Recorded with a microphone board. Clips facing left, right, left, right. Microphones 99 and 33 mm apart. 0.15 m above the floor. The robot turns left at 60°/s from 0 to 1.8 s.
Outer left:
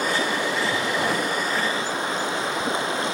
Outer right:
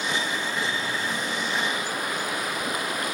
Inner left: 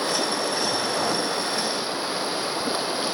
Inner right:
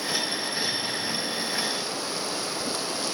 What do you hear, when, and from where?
0.0 s running water: 135° left, 2.5 m; by 3.1 s 25° left, 2.5 m